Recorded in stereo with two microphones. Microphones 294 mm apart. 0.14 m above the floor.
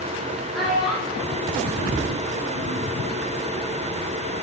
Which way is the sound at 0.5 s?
Centre (ahead or behind).